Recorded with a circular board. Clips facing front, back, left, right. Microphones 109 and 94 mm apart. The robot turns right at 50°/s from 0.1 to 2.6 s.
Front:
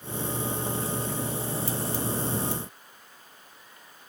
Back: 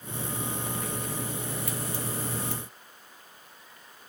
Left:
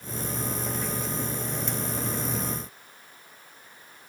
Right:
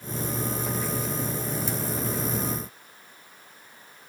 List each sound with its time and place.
Only background noise.